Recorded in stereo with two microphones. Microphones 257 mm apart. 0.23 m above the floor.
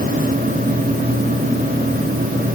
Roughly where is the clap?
I don't hear a clap.